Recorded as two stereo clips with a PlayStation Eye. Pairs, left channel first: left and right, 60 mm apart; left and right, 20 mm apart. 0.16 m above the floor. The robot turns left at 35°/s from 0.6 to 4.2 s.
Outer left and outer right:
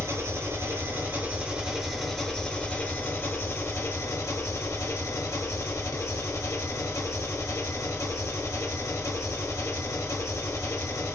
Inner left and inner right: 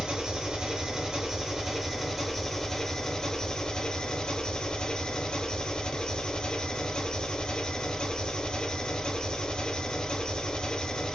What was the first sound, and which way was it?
An engine running, 130° right.